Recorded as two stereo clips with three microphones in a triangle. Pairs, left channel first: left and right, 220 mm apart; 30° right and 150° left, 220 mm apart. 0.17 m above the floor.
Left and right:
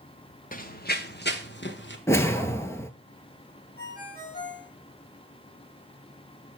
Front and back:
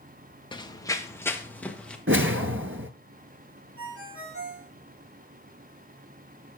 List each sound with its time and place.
0.5 s running footsteps: 40° left, 1.3 m; by 2.0 s 55° left, 2.5 m
2.1 s a whoosh: 165° left, 1.0 m
3.8 s a ringtone: 135° left, 6.5 m